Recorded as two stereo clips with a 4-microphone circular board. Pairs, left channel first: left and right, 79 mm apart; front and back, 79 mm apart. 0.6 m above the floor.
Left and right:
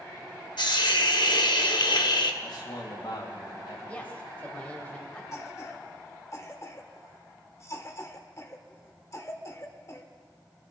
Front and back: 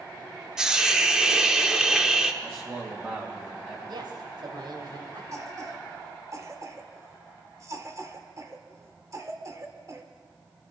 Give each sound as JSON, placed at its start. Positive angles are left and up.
{"t": 0.6, "sound": "a hiss", "azimuth_deg": 100, "distance_m": 0.9}
{"t": 2.4, "sound": "a man speaking", "azimuth_deg": 120, "distance_m": 3.0}
{"t": 3.9, "sound": "a woman speaking", "azimuth_deg": 165, "distance_m": 2.0}
{"t": 5.3, "sound": "a cough", "azimuth_deg": 135, "distance_m": 1.8}